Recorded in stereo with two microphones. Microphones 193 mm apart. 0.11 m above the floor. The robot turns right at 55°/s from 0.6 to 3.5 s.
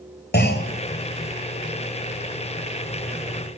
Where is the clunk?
60° left (ahead or behind), 1.3 m; by 0.7 s 55° left (ahead or behind), 1.3 m.